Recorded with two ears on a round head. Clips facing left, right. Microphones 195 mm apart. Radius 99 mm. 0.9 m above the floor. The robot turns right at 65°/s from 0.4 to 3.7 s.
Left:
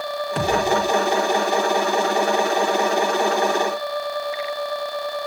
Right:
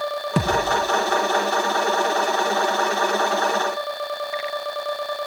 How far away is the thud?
About 3.5 m.